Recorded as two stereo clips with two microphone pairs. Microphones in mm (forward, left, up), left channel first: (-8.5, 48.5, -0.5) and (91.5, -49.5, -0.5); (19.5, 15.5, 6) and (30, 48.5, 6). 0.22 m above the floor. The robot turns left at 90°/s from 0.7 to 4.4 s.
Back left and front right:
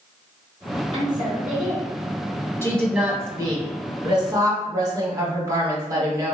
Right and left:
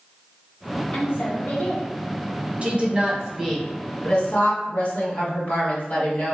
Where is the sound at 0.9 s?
75° right, 1.7 m; by 1.9 s 155° right, 1.7 m.